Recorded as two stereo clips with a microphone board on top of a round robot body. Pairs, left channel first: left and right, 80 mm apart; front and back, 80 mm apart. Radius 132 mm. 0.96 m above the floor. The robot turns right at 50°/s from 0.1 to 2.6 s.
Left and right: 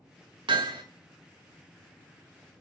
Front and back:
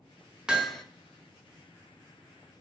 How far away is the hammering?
About 1.1 m.